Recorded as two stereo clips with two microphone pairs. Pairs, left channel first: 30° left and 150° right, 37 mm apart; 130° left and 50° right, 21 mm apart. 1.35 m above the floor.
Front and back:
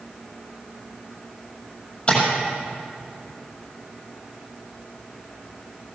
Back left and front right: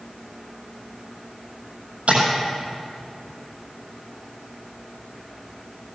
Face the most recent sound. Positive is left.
turn(degrees=-40)